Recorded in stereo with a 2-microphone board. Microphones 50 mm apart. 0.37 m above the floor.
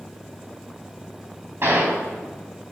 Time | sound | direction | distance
1.6 | a gunshot | 50° right (ahead or behind) | 3.5 m